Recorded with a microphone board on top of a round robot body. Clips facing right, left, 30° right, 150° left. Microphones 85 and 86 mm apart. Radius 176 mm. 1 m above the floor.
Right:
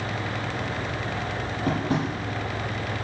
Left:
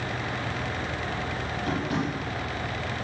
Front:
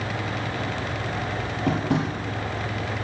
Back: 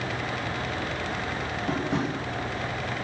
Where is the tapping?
35° right, 8.5 m.